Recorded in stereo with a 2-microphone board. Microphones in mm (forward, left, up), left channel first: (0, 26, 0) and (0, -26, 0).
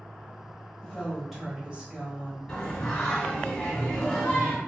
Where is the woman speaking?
10° left (ahead or behind), 1.4 m; by 2.4 s 40° right (ahead or behind), 1.6 m.